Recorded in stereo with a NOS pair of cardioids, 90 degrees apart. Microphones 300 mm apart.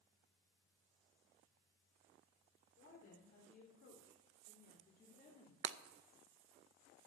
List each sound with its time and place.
2.8 s a woman speaking: 50° left, 3.5 m; by 5.5 s 25° left, 2.5 m
5.6 s breaking glass: 45° right, 0.5 m